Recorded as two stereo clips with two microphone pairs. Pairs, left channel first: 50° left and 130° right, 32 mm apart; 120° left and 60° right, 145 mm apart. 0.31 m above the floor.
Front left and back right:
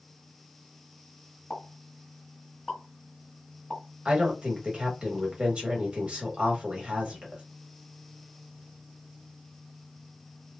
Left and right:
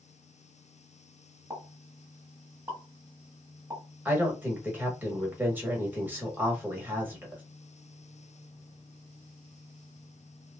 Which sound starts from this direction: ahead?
A pop, at 1.5 s.